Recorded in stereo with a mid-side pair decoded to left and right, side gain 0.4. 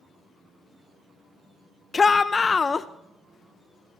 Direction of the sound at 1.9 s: 35° left.